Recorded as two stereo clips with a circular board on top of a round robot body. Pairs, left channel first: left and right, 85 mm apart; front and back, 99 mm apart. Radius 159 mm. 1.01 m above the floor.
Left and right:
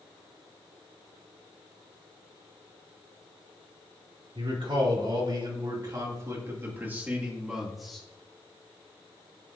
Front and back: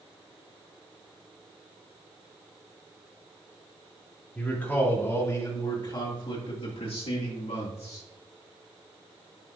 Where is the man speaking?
75° right, 3 m; by 8.1 s 5° left, 2.5 m.